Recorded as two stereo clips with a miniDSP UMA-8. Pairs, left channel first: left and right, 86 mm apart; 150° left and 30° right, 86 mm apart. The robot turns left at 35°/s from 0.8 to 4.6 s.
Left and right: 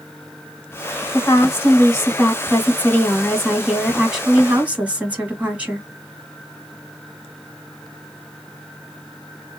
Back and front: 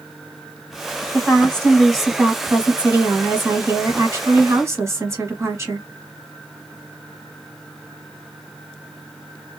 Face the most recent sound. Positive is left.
turn(degrees=-30)